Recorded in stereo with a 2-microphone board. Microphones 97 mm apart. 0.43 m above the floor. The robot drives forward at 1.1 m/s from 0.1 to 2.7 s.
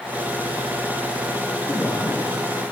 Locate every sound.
1.7 s a man speaking: 20° left (ahead or behind), 6.5 m; by 2.2 s 25° left (ahead or behind), 6 m